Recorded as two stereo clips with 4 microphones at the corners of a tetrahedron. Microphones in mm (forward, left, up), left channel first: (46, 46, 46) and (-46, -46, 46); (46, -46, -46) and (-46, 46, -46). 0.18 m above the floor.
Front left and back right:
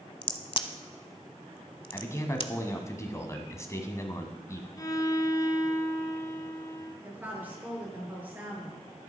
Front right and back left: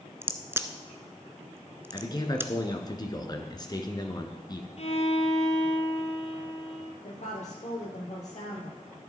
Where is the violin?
15° right, 1.5 m.